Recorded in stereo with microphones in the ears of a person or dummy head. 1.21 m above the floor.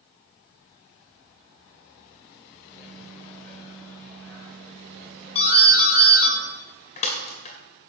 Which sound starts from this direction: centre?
A microwave, at 2.6 s.